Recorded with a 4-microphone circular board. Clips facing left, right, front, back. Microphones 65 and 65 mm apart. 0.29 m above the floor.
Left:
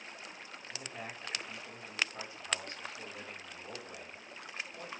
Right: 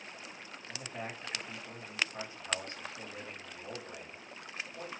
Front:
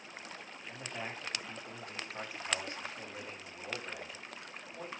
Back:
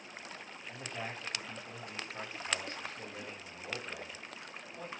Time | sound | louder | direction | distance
0.7 | a man speaking | right 3 dB, even | 70° right | 1.5 m